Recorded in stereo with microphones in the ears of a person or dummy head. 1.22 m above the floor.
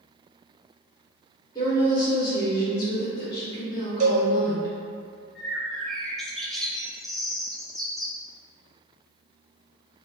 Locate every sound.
1.6 s a woman speaking: 20° left (ahead or behind), 1.1 m
4.0 s a cowbell: 35° right (ahead or behind), 0.7 m
5.3 s a bird: centre (ahead or behind), 0.5 m